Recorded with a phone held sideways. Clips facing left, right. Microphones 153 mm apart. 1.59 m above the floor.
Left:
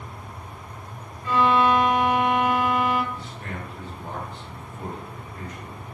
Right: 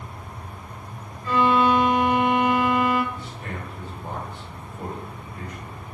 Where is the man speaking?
15° right (ahead or behind), 1.9 m.